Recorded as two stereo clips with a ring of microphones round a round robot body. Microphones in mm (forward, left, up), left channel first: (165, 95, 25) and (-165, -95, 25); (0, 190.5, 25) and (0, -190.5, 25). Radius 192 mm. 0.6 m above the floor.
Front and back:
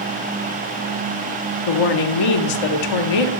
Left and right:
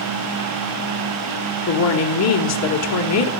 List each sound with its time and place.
1.7 s a woman speaking: 45° left, 2 m